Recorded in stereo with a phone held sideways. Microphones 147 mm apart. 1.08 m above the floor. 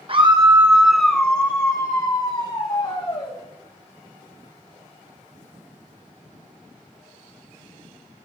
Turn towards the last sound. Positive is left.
turn(degrees=40)  # may be behind; listen again after turning